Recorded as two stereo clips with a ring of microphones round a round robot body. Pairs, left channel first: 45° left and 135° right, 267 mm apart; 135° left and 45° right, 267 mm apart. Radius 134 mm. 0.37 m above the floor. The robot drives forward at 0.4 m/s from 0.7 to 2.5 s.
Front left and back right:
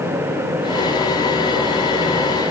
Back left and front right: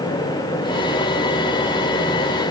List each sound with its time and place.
Only background noise.